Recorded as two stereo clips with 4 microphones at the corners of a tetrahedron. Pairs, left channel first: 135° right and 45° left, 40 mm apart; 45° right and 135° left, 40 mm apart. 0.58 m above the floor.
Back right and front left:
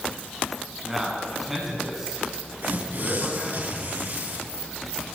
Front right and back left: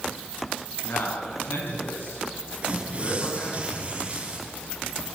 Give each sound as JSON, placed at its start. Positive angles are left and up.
{"t": 0.8, "sound": "a man speaking", "azimuth_deg": -40, "distance_m": 7.0}
{"t": 2.6, "sound": "tearing paper", "azimuth_deg": 75, "distance_m": 5.0}